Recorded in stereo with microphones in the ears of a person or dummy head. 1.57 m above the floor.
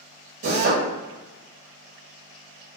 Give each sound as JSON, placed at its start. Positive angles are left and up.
{"t": 0.4, "sound": "a drill", "side_deg": -60, "distance_m": 1.2}